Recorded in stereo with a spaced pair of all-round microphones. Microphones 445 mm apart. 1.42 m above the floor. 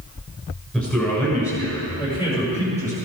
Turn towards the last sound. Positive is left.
turn(degrees=15)  # may be behind; listen again after turning